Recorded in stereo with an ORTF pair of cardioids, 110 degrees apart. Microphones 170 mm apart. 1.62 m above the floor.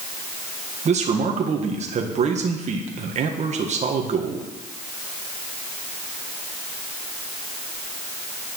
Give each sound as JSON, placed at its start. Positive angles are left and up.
{"t": 0.8, "sound": "a man speaking", "azimuth_deg": -40, "distance_m": 1.6}